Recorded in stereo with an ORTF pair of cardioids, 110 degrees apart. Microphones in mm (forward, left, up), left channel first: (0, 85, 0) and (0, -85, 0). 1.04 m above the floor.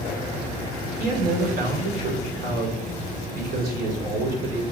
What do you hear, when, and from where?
1.0 s a man speaking: 60° right, 2.5 m